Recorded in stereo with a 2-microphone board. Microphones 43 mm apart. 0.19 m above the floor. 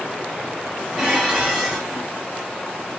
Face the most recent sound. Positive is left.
turn(degrees=-10)  # may be behind; listen again after turning